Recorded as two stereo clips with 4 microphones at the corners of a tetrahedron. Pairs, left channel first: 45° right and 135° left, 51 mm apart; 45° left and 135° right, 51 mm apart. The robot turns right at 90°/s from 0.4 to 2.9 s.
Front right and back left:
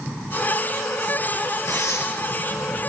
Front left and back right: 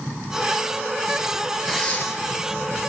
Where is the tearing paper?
40° right, 4 m; by 2.0 s 5° right, 4 m.